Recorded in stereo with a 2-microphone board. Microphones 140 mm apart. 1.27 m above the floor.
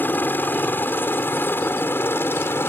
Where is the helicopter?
15° left (ahead or behind).